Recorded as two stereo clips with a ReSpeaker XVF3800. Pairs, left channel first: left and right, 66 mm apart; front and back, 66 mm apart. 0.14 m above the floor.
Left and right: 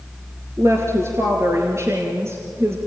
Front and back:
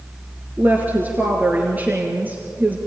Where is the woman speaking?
120° right, 2.5 m.